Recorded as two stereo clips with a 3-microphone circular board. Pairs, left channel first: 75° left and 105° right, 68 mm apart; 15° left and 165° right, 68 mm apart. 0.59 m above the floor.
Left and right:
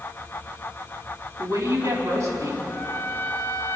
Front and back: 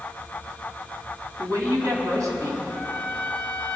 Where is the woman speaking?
135° right, 4 m.